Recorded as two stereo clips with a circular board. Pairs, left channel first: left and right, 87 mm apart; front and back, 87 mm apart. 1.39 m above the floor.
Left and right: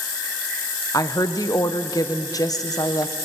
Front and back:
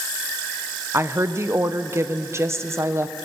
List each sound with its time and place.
0.9 s a woman speaking: 125° left, 0.9 m